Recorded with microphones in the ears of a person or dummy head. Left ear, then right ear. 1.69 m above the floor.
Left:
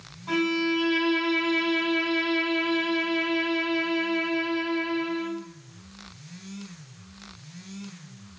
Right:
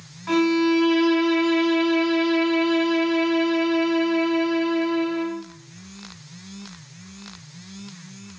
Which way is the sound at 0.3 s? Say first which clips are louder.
Right 5 dB; 55° right (ahead or behind).